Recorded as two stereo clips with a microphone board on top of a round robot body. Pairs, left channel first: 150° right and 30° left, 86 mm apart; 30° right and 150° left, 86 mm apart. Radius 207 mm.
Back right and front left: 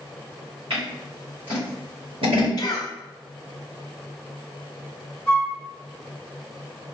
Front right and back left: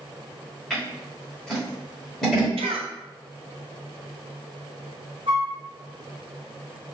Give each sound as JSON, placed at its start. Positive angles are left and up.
{"t": 0.7, "sound": "scissors", "azimuth_deg": 55, "distance_m": 1.2}
{"t": 2.6, "sound": "a cough", "azimuth_deg": 165, "distance_m": 0.6}
{"t": 5.3, "sound": "a flute", "azimuth_deg": 130, "distance_m": 0.7}